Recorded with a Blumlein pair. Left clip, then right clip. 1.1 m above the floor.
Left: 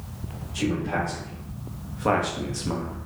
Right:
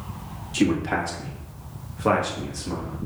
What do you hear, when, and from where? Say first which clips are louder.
0.5 s a man speaking: right 4 dB; 40° right, 1.5 m; by 3.0 s 25° left, 1.2 m